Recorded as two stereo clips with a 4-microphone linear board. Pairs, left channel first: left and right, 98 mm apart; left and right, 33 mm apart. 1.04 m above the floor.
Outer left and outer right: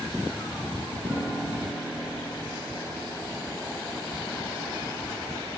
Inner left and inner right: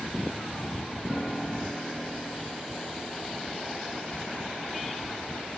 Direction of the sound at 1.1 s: 30° right (ahead or behind).